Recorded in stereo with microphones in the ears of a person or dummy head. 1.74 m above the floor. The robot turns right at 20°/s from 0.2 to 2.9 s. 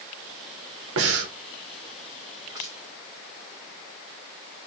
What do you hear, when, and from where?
1.0 s breathing: 75° right (ahead or behind), 0.6 m
2.5 s crushing: 25° right (ahead or behind), 1.1 m